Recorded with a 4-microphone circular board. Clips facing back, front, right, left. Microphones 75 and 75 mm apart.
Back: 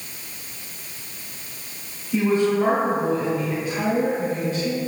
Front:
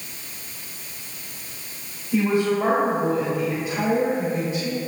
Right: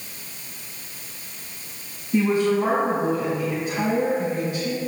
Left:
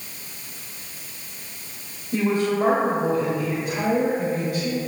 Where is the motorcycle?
I don't hear a motorcycle.